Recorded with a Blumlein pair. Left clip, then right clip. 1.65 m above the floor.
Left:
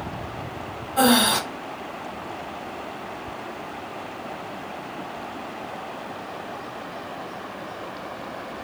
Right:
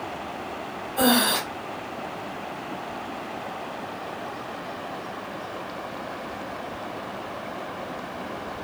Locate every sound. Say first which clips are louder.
1.0 s breathing: left 3 dB; 20° left, 0.9 m